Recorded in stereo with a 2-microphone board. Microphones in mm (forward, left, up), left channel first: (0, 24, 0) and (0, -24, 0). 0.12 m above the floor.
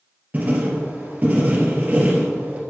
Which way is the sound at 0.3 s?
35° right (ahead or behind).